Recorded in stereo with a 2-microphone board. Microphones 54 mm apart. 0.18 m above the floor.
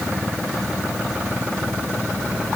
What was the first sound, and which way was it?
Only background noise.